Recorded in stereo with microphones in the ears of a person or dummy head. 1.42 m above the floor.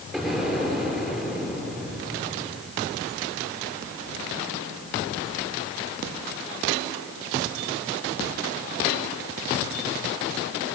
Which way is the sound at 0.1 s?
Centre (ahead or behind).